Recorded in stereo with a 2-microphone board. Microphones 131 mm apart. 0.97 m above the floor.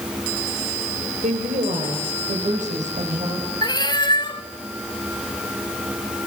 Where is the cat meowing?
35° left (ahead or behind), 1.3 m.